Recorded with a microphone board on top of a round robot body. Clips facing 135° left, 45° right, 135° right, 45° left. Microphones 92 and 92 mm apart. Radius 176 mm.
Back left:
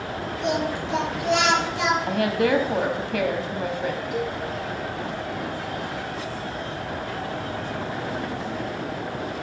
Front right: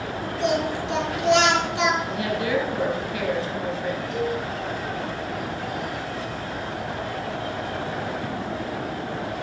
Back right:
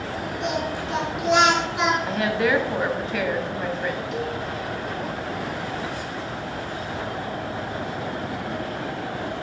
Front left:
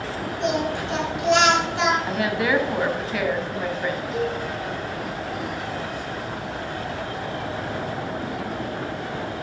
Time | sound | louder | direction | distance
0.4 | singing | front right 2 dB, front left 4 dB | 55° right | 4 m
2.1 | a woman speaking | back left 4 dB, back right 1 dB | 135° left | 1.7 m
4.1 | a cowbell | front right 2 dB, front left 3 dB | 140° right | 4.5 m